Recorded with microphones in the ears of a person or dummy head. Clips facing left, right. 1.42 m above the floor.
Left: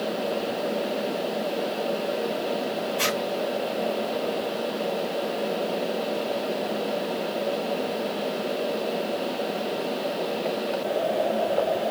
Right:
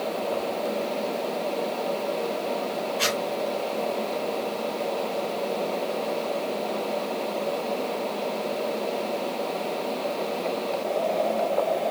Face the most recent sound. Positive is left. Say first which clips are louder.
# even
turn(degrees=45)  # may be behind; listen again after turning